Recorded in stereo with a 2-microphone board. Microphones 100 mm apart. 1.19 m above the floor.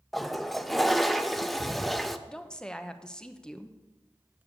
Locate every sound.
0.1 s a toilet flushing: centre (ahead or behind), 0.6 m
2.3 s a woman speaking: 5° left (ahead or behind), 0.9 m